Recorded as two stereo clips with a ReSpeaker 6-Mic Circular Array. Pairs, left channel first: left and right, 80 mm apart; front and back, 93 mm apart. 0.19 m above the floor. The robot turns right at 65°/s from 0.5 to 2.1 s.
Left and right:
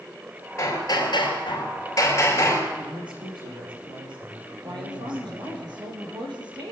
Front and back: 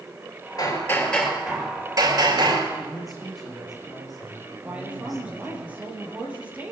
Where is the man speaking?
90° right, 7 m.